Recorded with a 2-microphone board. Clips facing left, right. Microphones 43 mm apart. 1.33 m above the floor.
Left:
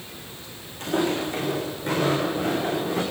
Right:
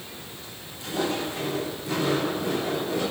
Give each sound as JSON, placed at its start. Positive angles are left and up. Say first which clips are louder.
{"t": 0.8, "sound": "footsteps", "louder": "left 3 dB", "side_deg": 60, "distance_m": 5.5}